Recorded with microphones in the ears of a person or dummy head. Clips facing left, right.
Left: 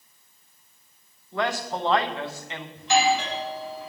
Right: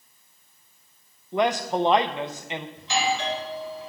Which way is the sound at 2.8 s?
50° left (ahead or behind).